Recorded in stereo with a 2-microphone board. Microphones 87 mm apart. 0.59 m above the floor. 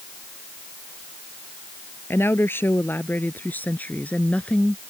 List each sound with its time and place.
2.1 s a woman speaking: 25° left (ahead or behind); by 4.8 s 10° left (ahead or behind)